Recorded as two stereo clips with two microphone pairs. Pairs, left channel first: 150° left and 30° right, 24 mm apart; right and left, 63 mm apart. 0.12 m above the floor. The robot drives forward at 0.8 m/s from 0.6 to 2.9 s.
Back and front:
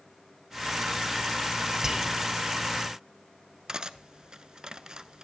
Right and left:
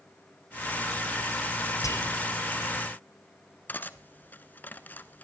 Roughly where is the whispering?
Right.